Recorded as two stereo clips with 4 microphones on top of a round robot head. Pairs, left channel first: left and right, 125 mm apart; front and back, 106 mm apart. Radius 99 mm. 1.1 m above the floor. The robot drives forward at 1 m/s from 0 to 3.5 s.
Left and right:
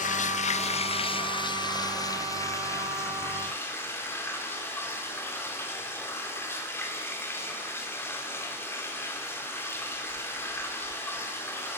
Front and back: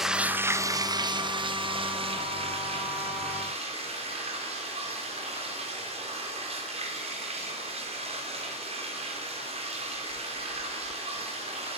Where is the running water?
90° left, 1.2 m; by 11.8 s 160° left, 3.5 m.